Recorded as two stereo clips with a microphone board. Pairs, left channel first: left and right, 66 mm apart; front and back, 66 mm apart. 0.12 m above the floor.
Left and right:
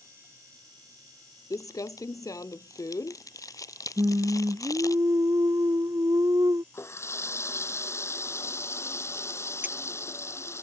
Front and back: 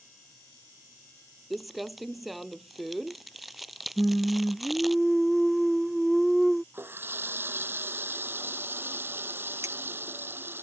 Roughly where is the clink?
Behind right.